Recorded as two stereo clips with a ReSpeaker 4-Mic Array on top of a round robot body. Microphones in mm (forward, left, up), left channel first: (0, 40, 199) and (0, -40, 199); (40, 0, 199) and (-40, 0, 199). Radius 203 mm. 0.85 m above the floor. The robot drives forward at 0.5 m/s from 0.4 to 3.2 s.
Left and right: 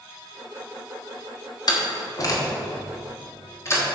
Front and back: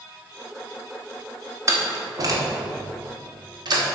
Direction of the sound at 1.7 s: 130° left.